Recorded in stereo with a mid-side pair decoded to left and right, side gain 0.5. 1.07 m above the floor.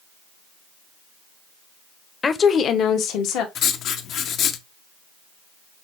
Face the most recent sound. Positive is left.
turn(degrees=65)